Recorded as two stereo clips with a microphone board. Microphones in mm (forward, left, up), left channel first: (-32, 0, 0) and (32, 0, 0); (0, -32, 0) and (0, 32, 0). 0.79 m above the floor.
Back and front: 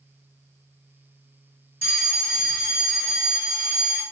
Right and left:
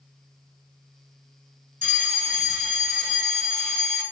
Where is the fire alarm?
135° right, 1.6 m.